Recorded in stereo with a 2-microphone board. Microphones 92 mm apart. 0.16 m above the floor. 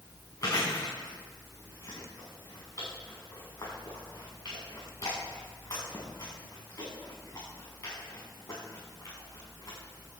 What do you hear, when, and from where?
0.4 s chewing: 40° left (ahead or behind), 6.5 m